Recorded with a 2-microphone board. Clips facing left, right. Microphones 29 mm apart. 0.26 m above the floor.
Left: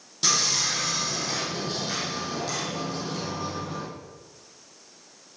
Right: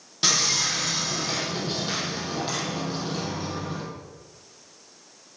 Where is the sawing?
25° right (ahead or behind), 5.5 m.